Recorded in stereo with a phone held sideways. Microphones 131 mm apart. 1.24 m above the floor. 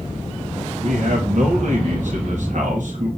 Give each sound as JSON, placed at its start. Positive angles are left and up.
{"t": 0.8, "sound": "a man speaking", "side_deg": -65, "distance_m": 2.5}